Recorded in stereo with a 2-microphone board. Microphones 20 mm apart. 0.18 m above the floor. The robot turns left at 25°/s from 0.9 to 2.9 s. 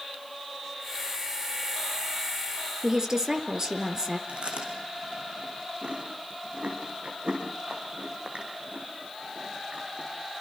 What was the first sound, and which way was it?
A woman speaking, 35° right (ahead or behind).